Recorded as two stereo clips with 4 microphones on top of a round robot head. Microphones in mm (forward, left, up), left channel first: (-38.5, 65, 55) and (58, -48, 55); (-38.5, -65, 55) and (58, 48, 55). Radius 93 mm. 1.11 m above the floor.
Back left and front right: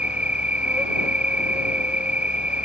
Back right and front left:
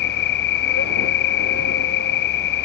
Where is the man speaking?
I don't hear a man speaking.